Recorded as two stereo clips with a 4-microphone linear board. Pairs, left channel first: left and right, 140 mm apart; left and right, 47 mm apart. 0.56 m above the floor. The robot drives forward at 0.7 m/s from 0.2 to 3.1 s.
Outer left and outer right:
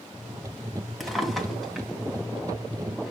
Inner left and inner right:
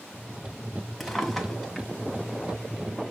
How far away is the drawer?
About 2 m.